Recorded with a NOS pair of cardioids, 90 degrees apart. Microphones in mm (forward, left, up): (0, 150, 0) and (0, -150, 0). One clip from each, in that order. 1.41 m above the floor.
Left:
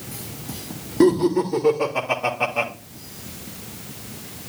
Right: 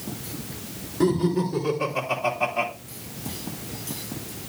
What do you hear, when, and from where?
1.0 s laughter: 50° left, 3 m; by 2.7 s 70° left, 3 m